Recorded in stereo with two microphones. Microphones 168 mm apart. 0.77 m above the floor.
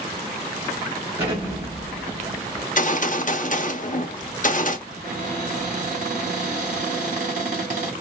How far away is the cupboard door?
About 3 m.